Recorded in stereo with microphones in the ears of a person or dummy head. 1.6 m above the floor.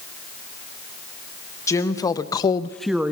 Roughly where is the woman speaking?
Centre.